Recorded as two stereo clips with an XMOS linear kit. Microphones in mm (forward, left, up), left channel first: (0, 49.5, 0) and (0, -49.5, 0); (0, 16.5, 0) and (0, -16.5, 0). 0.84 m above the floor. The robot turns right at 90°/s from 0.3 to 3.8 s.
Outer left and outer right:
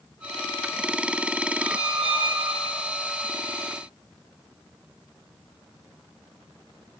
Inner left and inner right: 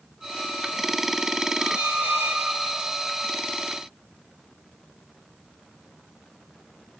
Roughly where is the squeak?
Right.